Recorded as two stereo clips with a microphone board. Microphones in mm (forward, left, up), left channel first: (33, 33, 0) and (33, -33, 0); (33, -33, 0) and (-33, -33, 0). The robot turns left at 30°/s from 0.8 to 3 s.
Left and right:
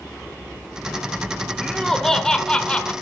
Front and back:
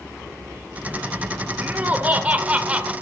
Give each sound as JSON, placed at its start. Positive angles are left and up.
{"t": 1.6, "sound": "laughter", "azimuth_deg": 175, "distance_m": 1.0}